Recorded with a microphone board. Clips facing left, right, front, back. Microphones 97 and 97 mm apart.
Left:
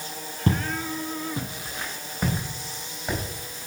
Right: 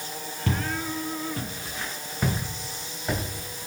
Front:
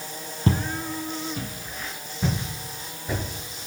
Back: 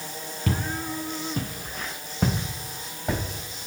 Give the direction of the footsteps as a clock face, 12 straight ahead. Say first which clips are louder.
Left 3 dB, front 3 dB; 10 o'clock.